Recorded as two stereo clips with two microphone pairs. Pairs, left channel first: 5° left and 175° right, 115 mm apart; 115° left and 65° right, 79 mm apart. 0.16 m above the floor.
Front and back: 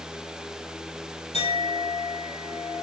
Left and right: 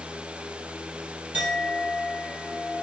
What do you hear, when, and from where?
1.3 s a clink: straight ahead, 2 m